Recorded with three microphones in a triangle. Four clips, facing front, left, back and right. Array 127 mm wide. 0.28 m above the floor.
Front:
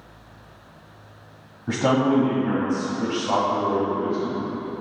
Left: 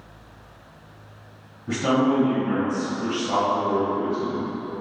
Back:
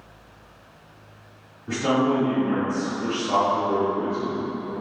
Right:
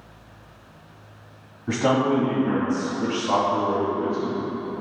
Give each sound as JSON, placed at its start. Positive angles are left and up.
{"t": 1.7, "sound": "a man speaking", "azimuth_deg": -30, "distance_m": 1.6}